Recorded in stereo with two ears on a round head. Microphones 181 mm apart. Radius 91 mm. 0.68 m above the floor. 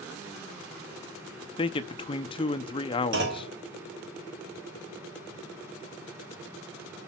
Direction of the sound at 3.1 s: 60° right (ahead or behind).